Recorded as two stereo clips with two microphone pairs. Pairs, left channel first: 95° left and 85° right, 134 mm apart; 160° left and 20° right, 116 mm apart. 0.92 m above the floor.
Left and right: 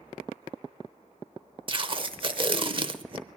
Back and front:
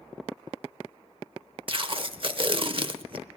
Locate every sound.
1.7 s tape being pulled: 40° right, 0.9 m